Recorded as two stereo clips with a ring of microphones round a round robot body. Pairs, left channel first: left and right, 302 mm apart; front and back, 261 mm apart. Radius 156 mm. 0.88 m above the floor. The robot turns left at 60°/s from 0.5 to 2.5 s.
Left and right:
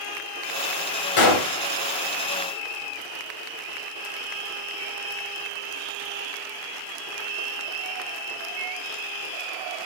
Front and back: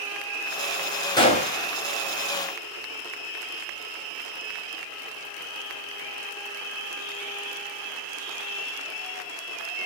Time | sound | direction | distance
1.2 | a gunshot | 75° left | 1.3 m